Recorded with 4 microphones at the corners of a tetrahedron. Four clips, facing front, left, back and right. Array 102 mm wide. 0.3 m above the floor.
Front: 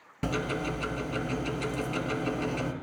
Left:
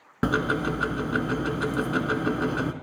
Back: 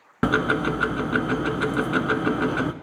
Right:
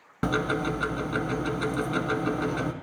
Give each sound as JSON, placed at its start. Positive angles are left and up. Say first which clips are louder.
{"t": 0.2, "sound": "ticking", "louder": "left 2 dB, back 9 dB", "azimuth_deg": 170, "distance_m": 0.6}